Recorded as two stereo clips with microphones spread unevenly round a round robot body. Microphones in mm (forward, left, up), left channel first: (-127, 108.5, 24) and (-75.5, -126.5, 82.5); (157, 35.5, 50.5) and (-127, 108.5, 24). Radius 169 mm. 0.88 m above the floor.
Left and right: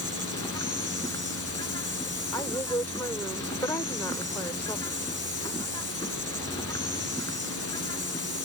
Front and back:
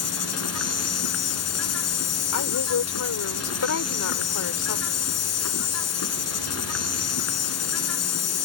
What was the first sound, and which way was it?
An insect, 20° left.